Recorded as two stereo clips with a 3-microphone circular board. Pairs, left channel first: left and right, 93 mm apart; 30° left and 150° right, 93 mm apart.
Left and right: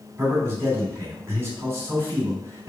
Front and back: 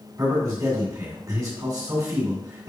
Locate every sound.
0.2 s a man speaking: 135° right, 1.8 m